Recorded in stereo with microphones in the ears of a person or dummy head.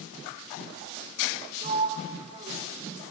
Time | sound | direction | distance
1.6 | a sliding door | 35° right (ahead or behind) | 2.0 m